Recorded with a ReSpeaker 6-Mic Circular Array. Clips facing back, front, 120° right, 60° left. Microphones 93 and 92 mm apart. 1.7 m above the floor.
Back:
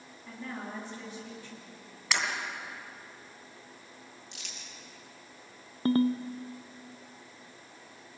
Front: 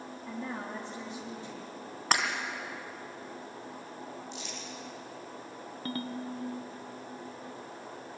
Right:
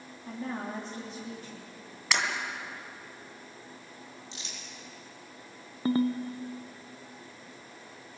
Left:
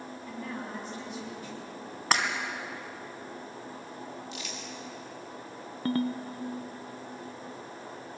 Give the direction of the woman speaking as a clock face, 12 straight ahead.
2 o'clock.